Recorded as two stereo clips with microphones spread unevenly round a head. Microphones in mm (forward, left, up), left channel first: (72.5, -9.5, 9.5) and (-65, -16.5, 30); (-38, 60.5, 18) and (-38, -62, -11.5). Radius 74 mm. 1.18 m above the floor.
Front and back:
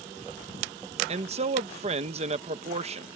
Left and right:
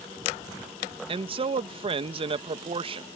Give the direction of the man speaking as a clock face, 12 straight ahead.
4 o'clock.